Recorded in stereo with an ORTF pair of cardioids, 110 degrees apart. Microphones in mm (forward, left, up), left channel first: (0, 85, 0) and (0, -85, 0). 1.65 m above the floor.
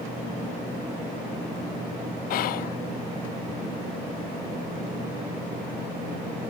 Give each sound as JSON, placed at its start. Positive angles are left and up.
{"t": 2.3, "sound": "whispering", "azimuth_deg": 60, "distance_m": 0.6}